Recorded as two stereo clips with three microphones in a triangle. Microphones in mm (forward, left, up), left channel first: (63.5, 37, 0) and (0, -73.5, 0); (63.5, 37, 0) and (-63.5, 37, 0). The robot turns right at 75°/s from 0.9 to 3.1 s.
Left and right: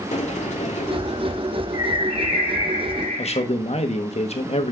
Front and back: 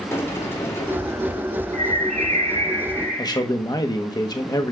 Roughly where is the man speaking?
Ahead left.